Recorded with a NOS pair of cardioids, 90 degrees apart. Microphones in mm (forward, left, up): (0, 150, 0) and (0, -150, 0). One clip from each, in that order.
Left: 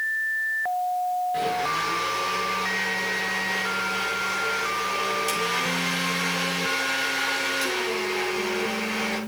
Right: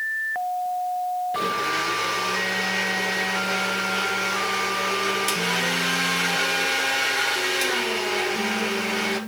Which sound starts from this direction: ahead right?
A blender, at 1.3 s.